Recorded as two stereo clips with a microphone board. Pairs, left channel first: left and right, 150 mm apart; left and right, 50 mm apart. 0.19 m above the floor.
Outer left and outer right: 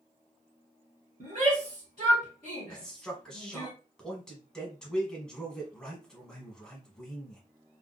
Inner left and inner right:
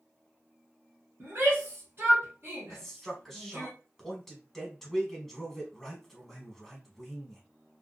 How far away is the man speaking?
About 1.2 m.